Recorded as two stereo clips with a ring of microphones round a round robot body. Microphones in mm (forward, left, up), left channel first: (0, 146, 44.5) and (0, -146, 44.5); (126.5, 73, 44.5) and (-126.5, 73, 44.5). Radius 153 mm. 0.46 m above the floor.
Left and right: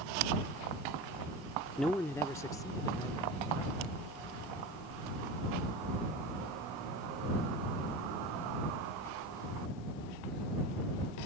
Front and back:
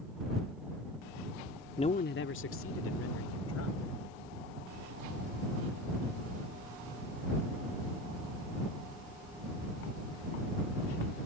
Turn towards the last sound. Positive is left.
turn(degrees=15)